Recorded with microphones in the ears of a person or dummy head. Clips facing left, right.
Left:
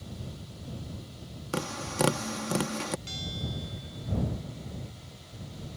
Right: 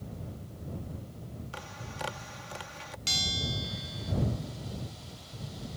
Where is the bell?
70° right (ahead or behind).